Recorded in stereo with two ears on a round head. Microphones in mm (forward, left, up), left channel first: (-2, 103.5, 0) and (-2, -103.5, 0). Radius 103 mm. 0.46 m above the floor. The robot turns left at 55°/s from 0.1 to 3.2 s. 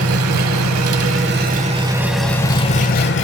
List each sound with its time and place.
0.0 s an engine running: 65° right, 0.7 m; by 3.2 s 125° left, 0.7 m